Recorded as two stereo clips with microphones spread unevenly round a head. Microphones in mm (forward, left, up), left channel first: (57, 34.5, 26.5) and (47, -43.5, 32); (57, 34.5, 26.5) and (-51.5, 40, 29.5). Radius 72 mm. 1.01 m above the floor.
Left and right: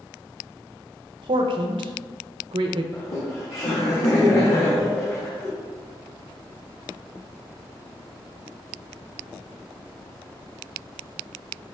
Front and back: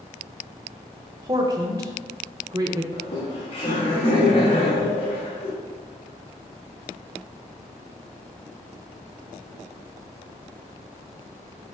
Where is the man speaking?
120° right, 0.5 m.